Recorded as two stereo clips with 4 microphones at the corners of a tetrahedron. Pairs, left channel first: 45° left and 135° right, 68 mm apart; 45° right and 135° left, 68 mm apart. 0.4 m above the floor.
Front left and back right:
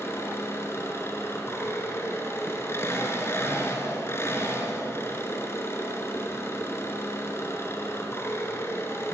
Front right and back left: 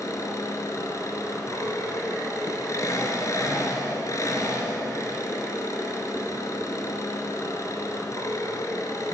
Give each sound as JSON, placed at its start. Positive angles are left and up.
{"t": 0.0, "sound": "an engine running", "azimuth_deg": -5, "distance_m": 4.5}